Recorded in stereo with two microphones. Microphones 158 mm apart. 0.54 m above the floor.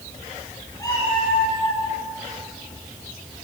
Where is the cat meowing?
20° left (ahead or behind), 3 m; by 1.8 s 40° left (ahead or behind), 3.5 m.